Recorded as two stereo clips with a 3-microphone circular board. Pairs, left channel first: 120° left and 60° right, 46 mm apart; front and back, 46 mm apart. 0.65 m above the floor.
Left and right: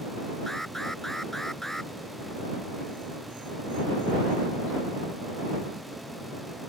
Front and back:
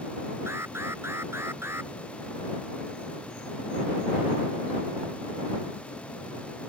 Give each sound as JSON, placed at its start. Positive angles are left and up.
{"t": 0.5, "sound": "an alarm", "azimuth_deg": -160}